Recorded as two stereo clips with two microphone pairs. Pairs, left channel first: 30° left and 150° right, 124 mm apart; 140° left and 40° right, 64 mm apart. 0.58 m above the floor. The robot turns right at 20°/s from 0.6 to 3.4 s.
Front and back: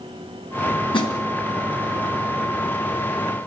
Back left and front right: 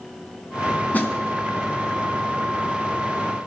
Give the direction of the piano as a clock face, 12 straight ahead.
I don't hear a piano.